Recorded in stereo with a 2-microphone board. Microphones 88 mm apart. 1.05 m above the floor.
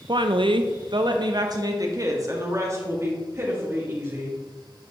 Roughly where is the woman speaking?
Right.